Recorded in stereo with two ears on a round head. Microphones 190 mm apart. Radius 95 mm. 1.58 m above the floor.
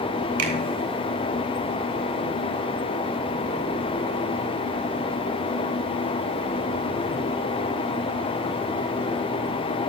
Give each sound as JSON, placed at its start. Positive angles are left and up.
{"t": 0.4, "sound": "a finger snap", "side_deg": -80, "distance_m": 3.5}